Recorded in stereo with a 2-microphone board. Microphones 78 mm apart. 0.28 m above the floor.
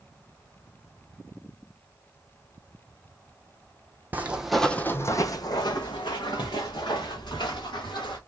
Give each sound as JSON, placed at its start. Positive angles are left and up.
{"t": 4.1, "sound": "footsteps", "side_deg": -20, "distance_m": 0.6}